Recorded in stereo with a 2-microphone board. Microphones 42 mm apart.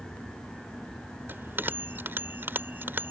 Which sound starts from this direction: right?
A bell, at 1.3 s.